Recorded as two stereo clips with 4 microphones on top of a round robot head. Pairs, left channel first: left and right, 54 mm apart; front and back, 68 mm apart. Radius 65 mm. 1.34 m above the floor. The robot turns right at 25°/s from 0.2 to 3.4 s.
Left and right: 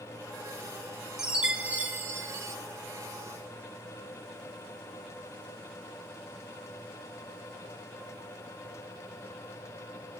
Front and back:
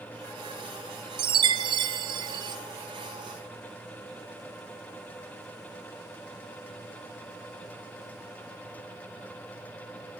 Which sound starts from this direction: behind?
A chime, at 1.2 s.